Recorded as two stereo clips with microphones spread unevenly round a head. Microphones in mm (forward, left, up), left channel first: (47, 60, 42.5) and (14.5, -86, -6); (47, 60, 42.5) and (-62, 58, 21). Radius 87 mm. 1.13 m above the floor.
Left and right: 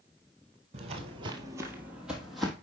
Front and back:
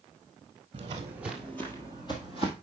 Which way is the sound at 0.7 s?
155° right.